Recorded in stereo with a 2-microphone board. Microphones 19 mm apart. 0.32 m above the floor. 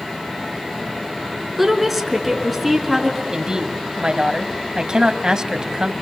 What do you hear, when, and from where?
1.6 s a woman speaking: 5° right (ahead or behind), 4 m
3.3 s a woman speaking: 35° right (ahead or behind), 1.9 m